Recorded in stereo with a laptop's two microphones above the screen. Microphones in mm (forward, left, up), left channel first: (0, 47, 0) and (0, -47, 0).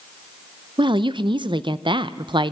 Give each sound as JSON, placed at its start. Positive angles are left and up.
{"t": 0.8, "sound": "a woman speaking", "side_deg": -55, "distance_m": 0.7}